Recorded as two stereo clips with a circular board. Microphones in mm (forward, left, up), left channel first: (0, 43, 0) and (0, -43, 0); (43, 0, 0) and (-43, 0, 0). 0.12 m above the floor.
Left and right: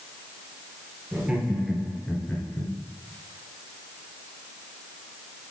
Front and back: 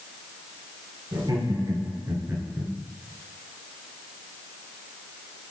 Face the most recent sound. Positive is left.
turn(degrees=100)